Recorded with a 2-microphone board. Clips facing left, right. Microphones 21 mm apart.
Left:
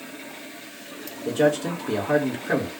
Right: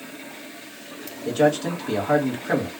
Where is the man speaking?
20° right (ahead or behind), 1.7 m.